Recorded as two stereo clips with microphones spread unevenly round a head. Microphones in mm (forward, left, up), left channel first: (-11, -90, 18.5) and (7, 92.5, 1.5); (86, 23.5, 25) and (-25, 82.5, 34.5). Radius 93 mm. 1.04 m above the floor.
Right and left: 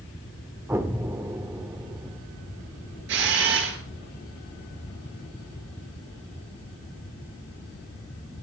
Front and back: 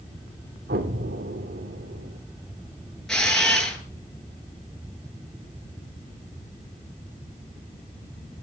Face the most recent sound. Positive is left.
turn(degrees=60)